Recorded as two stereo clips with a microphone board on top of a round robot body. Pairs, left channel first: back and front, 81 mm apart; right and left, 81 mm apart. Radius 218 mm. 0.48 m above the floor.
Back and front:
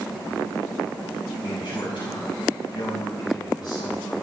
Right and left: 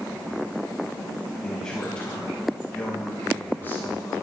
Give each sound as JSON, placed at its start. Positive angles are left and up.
{"t": 1.4, "sound": "a man speaking", "azimuth_deg": -175, "distance_m": 5.5}